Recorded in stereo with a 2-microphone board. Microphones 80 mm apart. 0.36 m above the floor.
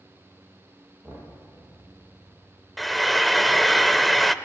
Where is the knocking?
20° right (ahead or behind), 6.5 m.